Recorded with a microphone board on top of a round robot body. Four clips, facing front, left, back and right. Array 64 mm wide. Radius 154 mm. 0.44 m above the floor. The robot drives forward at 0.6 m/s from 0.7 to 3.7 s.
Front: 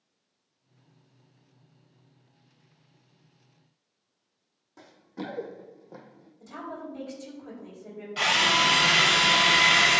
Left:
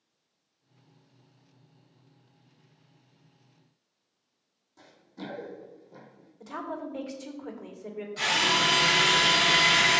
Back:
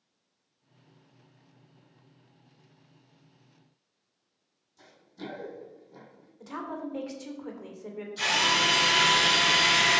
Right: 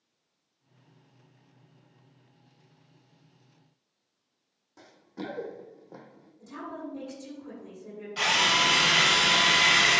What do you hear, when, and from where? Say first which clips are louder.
4.8 s running footsteps: right 3 dB, front 5 dB; 35° right, 2 m; by 6.3 s 60° right, 1.5 m
6.4 s a woman speaking: left 3 dB, back 2 dB; 130° left, 2.5 m
8.2 s a drill: right 1 dB, front 3 dB; 35° right, 3 m